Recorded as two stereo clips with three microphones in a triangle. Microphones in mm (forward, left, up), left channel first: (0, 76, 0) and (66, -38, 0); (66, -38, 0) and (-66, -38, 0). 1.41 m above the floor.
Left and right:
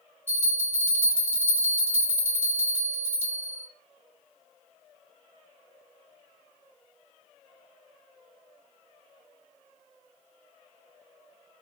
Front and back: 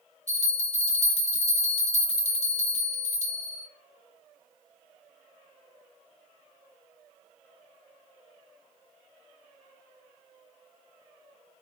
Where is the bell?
10° left, 0.6 m.